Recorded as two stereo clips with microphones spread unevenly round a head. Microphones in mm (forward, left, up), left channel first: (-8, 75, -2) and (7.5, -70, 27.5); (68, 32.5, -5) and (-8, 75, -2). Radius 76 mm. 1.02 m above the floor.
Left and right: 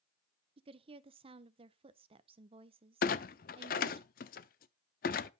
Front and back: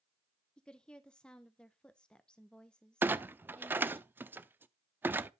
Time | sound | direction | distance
0.6 | a woman speaking | 90° right | 0.6 m
3.0 | a clunk | 95° left | 0.6 m